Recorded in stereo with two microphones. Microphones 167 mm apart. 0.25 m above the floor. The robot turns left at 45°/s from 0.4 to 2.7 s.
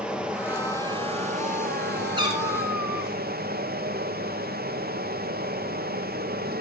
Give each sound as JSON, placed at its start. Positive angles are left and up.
{"t": 0.0, "sound": "running water", "azimuth_deg": -5, "distance_m": 2.0}
{"t": 2.2, "sound": "a cat meowing", "side_deg": -25, "distance_m": 5.0}